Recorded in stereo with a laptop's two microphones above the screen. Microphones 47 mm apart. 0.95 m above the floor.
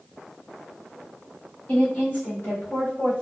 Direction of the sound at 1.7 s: 30° left (ahead or behind).